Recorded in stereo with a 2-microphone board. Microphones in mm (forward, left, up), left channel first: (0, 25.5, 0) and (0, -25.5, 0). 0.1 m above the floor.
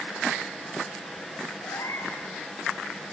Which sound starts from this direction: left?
A cat meowing, at 1.6 s.